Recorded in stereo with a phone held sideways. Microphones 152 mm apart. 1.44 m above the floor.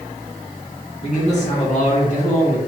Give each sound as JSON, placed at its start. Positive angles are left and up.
{"t": 1.0, "sound": "a man speaking", "side_deg": 50, "distance_m": 2.0}